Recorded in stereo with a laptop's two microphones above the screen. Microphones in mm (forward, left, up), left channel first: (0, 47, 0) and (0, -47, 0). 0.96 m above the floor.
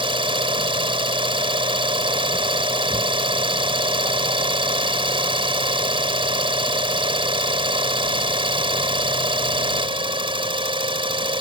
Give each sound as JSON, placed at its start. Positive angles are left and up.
{"t": 0.0, "sound": "an engine running", "side_deg": -70}